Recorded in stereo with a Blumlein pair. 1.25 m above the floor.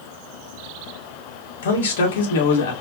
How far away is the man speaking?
About 1.9 m.